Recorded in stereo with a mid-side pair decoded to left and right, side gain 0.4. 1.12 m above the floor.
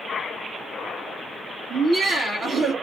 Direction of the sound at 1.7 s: 60° right.